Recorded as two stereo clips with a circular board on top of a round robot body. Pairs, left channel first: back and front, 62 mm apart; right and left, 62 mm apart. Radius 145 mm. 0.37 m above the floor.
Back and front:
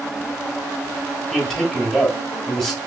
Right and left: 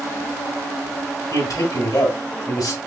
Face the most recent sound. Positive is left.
turn(degrees=-95)